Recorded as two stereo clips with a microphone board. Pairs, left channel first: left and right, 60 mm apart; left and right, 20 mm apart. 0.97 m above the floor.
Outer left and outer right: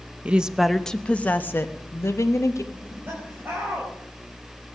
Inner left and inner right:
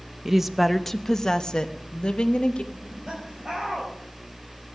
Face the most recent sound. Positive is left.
turn(degrees=-35)  # may be behind; listen again after turning